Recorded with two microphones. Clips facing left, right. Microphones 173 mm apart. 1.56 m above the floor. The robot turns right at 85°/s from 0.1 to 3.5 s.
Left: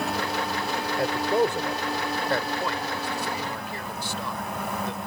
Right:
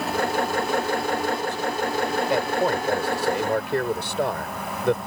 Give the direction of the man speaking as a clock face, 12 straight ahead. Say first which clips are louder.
Left 2 dB; 9 o'clock.